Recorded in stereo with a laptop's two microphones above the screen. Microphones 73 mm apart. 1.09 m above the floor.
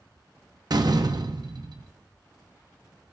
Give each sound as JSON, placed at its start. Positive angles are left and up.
{"t": 0.7, "sound": "a door slam", "side_deg": -65, "distance_m": 0.5}